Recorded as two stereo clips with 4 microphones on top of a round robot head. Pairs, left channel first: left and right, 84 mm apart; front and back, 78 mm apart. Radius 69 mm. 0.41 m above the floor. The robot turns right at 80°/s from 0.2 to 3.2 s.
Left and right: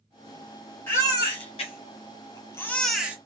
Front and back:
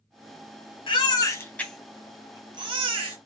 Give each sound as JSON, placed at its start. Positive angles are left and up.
{"t": 0.9, "sound": "a baby crying", "azimuth_deg": 15, "distance_m": 1.2}